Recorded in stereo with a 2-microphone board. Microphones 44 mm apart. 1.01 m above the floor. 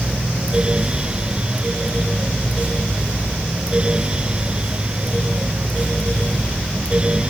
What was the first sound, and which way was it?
Only background noise.